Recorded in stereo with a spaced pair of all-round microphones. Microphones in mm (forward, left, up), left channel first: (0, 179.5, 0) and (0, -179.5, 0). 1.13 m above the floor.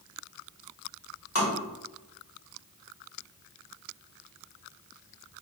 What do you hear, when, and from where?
1.4 s tapping: 40° left (ahead or behind), 1.4 m